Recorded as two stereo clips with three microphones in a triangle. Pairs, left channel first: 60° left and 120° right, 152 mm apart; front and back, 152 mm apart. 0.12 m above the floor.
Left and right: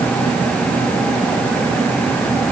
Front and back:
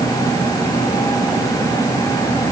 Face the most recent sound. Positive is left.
No sound to turn to.